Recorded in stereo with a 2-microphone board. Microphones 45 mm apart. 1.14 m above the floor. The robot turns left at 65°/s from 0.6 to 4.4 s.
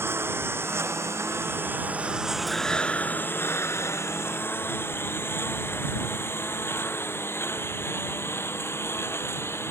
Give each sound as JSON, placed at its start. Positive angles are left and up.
{"t": 0.0, "sound": "a lawn mower", "side_deg": -65}
{"t": 2.5, "sound": "breathing", "azimuth_deg": 180}